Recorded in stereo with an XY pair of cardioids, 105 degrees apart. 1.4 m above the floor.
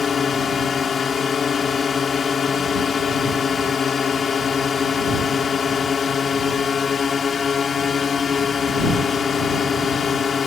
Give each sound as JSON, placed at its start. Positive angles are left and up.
{"t": 0.0, "sound": "a drone", "azimuth_deg": 45}